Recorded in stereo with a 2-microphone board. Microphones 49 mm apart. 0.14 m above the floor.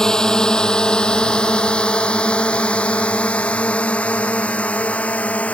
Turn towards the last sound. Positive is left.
turn(degrees=30)  # may be behind; listen again after turning